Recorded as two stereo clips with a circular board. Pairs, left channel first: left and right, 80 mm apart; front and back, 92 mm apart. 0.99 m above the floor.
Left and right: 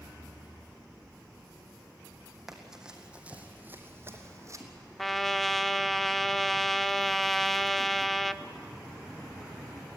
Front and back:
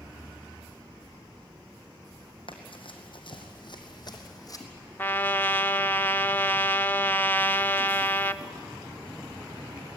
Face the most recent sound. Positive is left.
turn(degrees=5)